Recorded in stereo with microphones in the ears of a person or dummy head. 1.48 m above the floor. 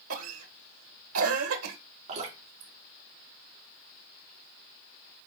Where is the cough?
80° right, 1.4 m.